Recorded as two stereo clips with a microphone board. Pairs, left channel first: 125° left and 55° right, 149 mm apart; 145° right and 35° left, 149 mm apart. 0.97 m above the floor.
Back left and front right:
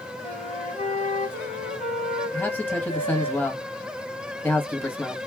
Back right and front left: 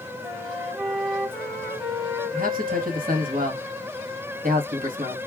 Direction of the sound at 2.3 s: 45° left.